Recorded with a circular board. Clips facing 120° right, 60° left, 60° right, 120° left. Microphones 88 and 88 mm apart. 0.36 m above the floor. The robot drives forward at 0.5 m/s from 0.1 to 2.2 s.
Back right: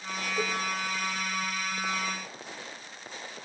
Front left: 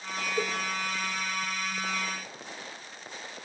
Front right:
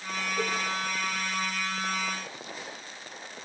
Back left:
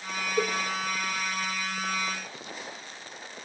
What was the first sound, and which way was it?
A cowbell, 115° left.